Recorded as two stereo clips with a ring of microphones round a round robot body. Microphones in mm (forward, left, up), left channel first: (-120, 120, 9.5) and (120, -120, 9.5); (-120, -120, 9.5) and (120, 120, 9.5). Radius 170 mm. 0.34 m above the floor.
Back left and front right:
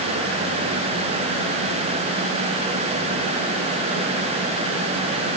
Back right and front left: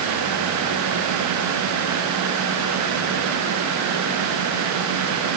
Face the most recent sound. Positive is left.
No sound to turn to.